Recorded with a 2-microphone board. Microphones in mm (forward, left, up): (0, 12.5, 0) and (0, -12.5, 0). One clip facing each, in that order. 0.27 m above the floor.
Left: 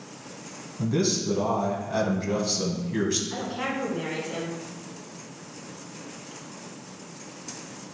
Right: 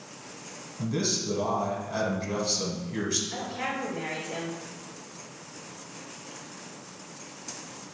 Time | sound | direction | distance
0.8 | a man speaking | 10° left (ahead or behind) | 2.0 m
3.3 | a woman speaking | 35° left (ahead or behind) | 3 m